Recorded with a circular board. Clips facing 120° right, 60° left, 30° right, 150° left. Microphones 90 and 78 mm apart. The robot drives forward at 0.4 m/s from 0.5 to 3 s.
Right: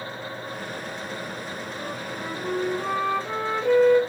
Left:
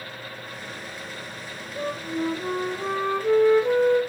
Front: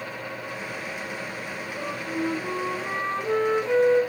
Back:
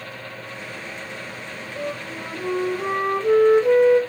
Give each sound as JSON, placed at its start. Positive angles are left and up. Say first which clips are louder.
{"t": 1.8, "sound": "a flute", "louder": "left 10 dB, front 1 dB", "azimuth_deg": 120, "distance_m": 2.0}